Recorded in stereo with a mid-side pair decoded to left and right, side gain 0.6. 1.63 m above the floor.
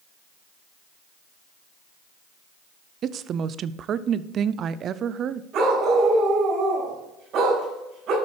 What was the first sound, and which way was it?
A woman speaking, 45° right.